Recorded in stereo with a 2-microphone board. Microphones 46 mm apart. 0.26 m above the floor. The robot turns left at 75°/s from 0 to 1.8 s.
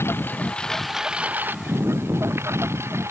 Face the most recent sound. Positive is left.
turn(degrees=-70)